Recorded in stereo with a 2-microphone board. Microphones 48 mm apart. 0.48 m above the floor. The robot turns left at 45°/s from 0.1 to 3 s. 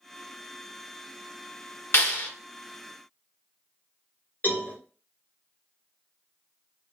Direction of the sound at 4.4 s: 45° left (ahead or behind).